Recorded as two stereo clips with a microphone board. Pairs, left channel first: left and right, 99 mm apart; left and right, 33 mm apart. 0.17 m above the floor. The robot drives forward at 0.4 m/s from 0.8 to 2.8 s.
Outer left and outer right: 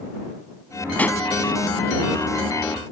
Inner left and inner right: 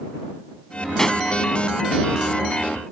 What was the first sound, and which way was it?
A pop, 15° left (ahead or behind).